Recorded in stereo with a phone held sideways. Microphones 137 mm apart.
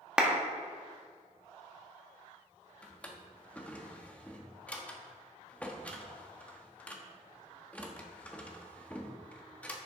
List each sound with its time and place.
0.2 s a clap: 5° right (ahead or behind), 1.3 m
2.8 s a drawer: 10° left (ahead or behind), 1.0 m